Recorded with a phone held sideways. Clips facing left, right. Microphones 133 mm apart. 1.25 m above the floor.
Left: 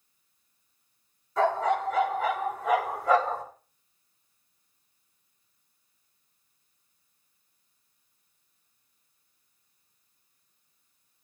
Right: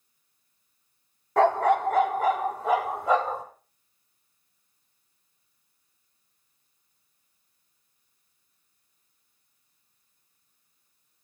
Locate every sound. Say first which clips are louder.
1.4 s a dog barking: right 4 dB; 65° right (ahead or behind), 1.3 m; by 3.4 s 15° right (ahead or behind), 1.9 m